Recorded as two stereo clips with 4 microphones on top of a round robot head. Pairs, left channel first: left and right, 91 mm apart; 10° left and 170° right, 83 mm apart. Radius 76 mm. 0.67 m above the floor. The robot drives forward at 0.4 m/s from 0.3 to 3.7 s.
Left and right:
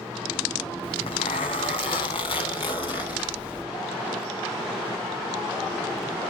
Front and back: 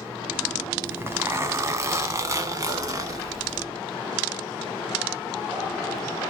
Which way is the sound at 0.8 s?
125° left.